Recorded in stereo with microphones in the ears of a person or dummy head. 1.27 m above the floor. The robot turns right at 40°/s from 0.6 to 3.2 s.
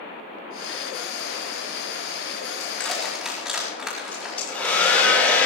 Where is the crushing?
15° left (ahead or behind), 4.5 m; by 4.8 s 5° right (ahead or behind), 4.5 m.